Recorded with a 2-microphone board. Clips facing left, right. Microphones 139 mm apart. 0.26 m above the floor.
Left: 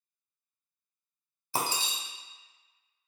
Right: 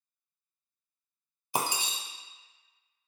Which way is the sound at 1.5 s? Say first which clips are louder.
Right 1 dB; 15° right (ahead or behind).